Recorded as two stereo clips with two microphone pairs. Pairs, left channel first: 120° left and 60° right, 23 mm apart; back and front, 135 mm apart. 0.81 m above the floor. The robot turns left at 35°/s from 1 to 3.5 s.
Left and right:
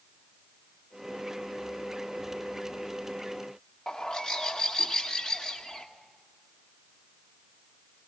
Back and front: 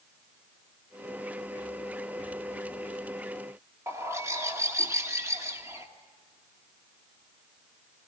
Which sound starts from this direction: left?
A bird, at 3.9 s.